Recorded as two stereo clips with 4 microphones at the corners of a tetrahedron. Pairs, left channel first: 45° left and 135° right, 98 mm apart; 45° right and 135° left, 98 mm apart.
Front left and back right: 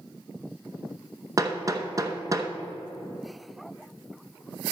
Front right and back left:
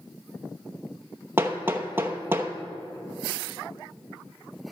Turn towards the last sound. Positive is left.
turn(degrees=-170)